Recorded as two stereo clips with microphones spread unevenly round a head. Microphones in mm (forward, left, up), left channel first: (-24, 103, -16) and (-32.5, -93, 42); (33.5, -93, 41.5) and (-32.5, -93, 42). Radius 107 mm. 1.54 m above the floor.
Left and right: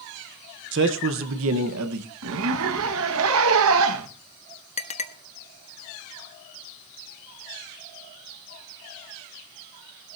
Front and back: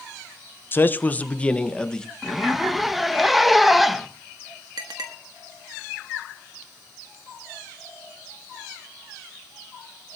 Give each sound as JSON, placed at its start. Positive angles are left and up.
{"t": 0.7, "sound": "a man speaking", "azimuth_deg": -60, "distance_m": 1.1}
{"t": 2.2, "sound": "a zipper", "azimuth_deg": -90, "distance_m": 1.8}
{"t": 4.8, "sound": "a clink", "azimuth_deg": 150, "distance_m": 1.5}